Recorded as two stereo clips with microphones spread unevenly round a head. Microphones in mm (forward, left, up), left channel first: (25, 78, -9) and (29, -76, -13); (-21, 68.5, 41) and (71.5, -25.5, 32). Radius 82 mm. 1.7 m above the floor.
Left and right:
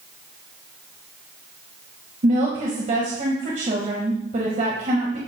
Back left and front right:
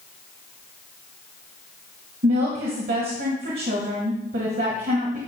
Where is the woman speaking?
45° right, 1.9 m.